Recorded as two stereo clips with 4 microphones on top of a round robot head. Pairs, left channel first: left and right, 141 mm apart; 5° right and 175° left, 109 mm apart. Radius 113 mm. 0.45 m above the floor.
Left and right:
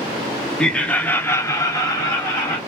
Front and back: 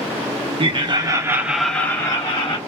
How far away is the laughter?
About 1.1 m.